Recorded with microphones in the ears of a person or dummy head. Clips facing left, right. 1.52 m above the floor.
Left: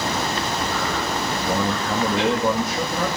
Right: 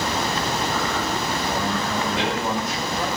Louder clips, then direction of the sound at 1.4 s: Left 2 dB; 65° left (ahead or behind).